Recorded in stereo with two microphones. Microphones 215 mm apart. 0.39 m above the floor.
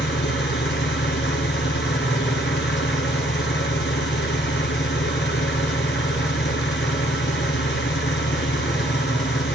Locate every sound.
0.0 s an engine running: 55° left (ahead or behind), 1.6 m